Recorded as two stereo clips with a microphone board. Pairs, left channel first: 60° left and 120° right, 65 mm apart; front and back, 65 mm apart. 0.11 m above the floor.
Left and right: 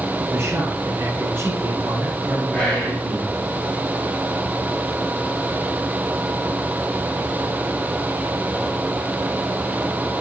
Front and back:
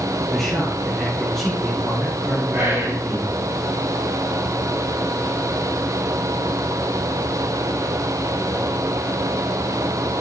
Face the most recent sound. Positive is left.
turn(degrees=140)